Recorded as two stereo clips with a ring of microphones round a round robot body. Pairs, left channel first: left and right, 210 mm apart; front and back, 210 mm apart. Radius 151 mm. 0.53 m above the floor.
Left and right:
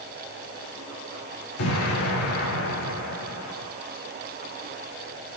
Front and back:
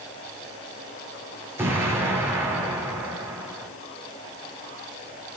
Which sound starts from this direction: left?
An explosion, at 1.6 s.